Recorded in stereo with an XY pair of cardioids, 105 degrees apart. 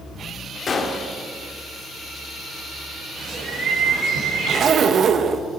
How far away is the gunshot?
About 2 m.